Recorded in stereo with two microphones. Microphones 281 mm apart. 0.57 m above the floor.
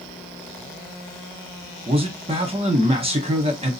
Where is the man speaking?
20° right (ahead or behind), 0.9 m.